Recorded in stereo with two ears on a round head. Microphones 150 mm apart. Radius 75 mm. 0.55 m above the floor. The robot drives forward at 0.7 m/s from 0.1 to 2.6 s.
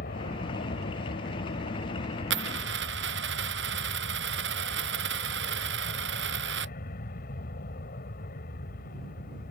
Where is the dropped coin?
75° right (ahead or behind); by 6.7 s 70° right (ahead or behind).